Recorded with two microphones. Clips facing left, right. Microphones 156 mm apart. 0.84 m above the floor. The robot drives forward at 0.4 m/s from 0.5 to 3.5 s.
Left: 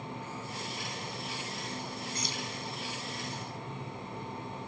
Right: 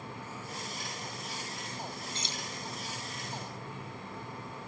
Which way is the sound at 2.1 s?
25° right (ahead or behind).